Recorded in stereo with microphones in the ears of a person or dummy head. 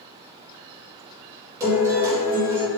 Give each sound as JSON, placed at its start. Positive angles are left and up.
{"t": 1.6, "sound": "a guitar", "side_deg": -15, "distance_m": 3.0}